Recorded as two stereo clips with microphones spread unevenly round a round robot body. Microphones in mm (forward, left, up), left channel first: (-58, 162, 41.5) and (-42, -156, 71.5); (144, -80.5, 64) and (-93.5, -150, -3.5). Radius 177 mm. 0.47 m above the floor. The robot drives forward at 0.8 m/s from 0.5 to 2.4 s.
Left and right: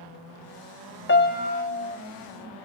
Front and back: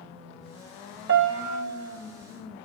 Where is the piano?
150° left, 1.0 m; by 2.0 s 160° left, 1.6 m.